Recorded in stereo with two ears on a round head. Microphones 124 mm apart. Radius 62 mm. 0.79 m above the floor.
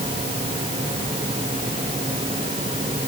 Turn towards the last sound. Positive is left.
No sound to turn to.